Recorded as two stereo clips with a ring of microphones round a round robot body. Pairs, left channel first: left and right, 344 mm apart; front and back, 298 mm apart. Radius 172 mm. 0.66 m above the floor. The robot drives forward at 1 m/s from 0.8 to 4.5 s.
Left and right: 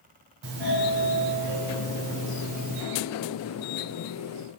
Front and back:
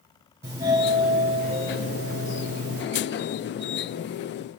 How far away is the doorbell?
About 2.5 m.